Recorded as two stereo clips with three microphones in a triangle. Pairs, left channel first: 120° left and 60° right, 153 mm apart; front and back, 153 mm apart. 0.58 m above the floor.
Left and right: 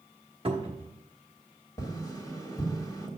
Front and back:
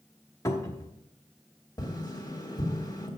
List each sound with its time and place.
0.5 s a cupboard door: 55° right, 1.1 m
1.8 s tapping: 60° left, 1.5 m